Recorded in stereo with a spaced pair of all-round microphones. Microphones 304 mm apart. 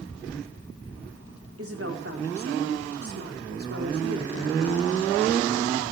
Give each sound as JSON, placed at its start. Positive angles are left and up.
{"t": 1.6, "sound": "a woman speaking", "side_deg": -50, "distance_m": 4.5}